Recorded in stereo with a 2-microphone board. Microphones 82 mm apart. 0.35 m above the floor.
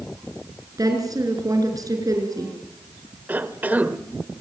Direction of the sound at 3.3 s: 20° right (ahead or behind).